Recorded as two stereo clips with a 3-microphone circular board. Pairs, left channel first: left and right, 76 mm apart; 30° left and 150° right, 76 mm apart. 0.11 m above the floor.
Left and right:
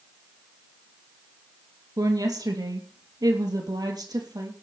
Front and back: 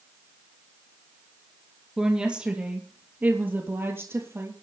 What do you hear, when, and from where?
2.0 s a woman speaking: 70° right, 3 m; by 4.5 s 105° right, 3 m